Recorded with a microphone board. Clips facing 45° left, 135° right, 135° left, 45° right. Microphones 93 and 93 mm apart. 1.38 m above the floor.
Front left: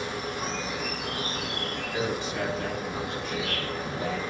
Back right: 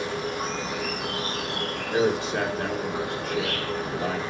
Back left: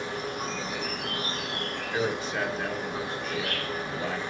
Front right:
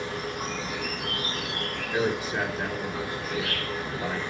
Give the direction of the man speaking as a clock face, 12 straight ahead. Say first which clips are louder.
Back right 8 dB, front right 2 dB; 4 o'clock.